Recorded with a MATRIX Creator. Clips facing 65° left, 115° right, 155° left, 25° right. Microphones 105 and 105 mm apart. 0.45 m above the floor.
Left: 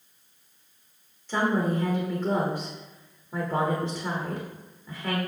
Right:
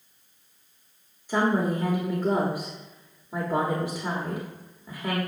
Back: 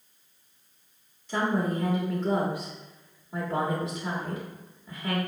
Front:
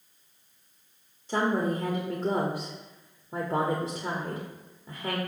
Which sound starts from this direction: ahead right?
A woman speaking, at 1.3 s.